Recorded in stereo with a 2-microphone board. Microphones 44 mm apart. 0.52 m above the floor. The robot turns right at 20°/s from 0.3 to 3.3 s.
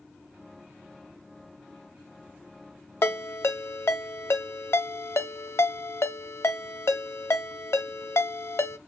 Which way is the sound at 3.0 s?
70° left (ahead or behind).